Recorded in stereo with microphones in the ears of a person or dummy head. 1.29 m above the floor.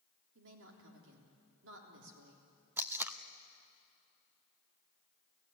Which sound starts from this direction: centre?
Tape being pulled, at 2.8 s.